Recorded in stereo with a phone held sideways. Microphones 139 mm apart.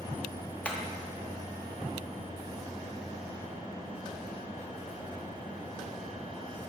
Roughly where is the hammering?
Centre.